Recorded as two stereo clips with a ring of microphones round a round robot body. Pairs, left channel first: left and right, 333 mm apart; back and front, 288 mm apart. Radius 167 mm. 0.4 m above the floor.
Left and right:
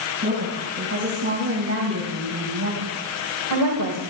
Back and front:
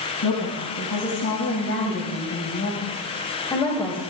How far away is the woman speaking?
About 3 m.